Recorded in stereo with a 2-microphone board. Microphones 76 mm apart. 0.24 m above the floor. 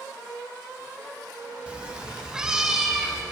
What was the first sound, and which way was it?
A cat meowing, 15° right (ahead or behind).